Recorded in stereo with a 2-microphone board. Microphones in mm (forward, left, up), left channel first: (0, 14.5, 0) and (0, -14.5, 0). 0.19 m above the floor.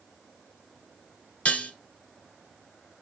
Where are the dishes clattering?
50° left (ahead or behind), 1.7 m.